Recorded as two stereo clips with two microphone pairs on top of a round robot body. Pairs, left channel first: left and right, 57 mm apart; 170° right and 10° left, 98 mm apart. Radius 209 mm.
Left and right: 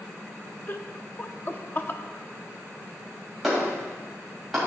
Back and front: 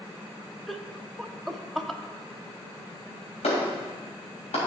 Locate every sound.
0.7 s laughter: 110° left, 0.9 m
3.4 s a clap: 175° right, 3 m